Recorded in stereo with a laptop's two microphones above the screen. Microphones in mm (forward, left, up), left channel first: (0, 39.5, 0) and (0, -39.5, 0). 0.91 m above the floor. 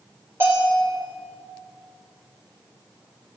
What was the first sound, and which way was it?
A bell, 30° right (ahead or behind).